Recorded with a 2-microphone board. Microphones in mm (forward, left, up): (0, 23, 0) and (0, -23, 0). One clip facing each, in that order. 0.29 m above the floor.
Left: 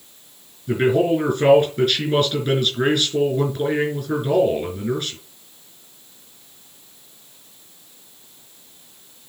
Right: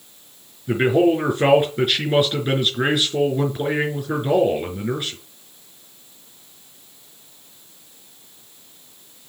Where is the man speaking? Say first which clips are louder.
Right 1 dB; 15° right (ahead or behind), 4 m.